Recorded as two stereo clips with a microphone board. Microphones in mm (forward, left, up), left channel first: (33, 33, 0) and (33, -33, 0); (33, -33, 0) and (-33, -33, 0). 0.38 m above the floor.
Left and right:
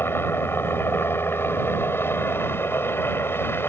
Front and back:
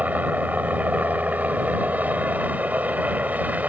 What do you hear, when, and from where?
0.0 s a helicopter: 125° left